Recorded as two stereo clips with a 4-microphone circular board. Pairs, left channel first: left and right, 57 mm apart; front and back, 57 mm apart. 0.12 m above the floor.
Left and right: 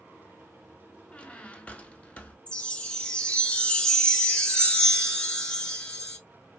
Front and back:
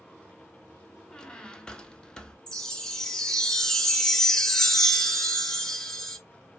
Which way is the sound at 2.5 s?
65° left.